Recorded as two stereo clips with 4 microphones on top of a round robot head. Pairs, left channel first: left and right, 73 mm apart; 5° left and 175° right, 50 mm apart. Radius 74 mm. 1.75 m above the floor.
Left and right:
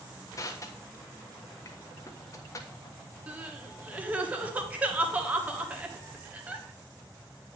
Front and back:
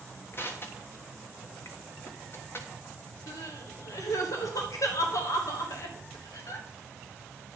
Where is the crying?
20° right, 1.4 m.